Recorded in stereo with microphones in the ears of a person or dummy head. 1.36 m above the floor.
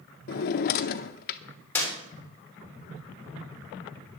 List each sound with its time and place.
0.3 s a drawer: 50° left (ahead or behind), 0.6 m
1.8 s a clap: 10° left (ahead or behind), 3.5 m